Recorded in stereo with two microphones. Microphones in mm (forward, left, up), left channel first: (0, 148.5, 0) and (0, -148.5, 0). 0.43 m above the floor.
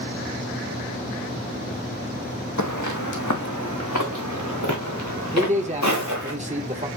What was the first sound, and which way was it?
Footsteps, 75° left (ahead or behind).